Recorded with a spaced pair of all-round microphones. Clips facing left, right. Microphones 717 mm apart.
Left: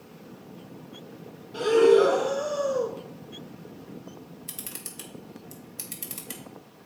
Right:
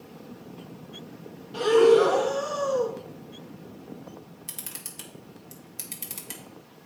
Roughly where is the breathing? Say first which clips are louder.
Even; right.